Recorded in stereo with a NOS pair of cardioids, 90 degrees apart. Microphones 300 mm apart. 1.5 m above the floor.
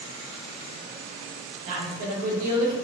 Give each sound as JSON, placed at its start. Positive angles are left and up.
{"t": 1.7, "sound": "a woman speaking", "azimuth_deg": -70, "distance_m": 1.2}